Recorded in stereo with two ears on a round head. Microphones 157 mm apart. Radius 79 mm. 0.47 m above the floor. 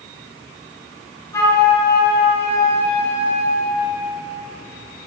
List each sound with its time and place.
1.3 s a flute: 15° left (ahead or behind), 2.5 m